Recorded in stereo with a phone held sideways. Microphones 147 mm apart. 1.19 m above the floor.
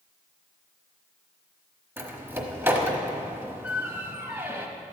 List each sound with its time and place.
2.0 s a door slam: 15° right (ahead or behind), 1.2 m